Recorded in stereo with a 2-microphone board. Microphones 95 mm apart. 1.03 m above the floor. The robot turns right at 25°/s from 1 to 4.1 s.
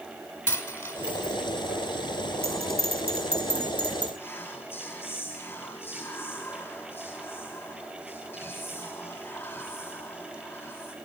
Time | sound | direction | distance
0.5 | a dropped coin | 25° left (ahead or behind) | 3 m
2.4 | a bell | 80° right | 3.5 m
4.2 | whispering | 20° left (ahead or behind) | 8.5 m